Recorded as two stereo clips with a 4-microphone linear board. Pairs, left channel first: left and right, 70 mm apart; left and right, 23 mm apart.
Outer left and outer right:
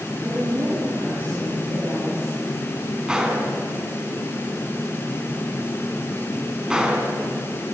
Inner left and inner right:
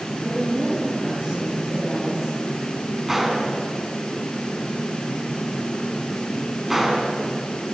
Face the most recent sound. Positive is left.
turn(degrees=-10)  # may be behind; listen again after turning